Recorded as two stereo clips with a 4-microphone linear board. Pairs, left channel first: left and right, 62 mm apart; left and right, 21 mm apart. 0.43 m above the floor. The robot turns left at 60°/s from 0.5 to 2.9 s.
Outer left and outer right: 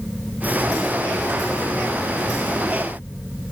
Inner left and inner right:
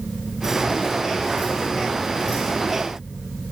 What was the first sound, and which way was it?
Only background noise.